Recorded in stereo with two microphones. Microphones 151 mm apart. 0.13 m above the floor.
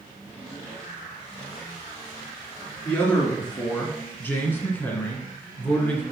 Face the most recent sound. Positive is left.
turn(degrees=10)  # may be behind; listen again after turning